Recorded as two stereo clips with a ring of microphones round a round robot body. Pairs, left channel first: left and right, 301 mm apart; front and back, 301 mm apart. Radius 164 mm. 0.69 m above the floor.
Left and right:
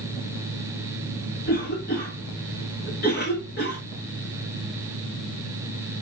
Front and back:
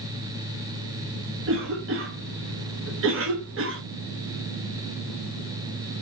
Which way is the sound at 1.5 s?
145° left.